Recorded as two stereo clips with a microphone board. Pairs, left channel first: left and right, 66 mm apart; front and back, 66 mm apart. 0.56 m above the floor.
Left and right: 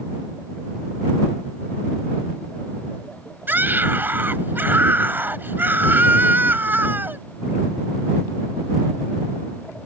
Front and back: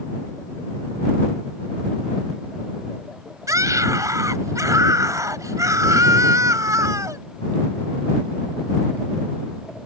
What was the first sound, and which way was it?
A scream, 150° right.